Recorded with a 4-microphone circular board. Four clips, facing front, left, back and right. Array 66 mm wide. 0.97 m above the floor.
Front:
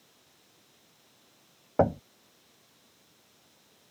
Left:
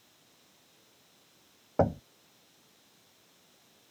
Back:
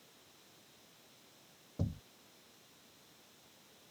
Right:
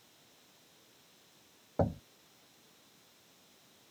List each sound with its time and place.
1.8 s knocking: 25° left